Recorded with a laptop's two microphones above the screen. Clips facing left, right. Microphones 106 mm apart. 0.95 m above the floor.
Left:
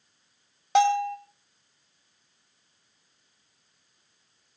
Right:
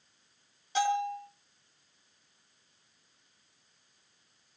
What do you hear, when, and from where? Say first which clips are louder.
0.8 s a bell: left 8 dB; 75° left (ahead or behind), 2.5 m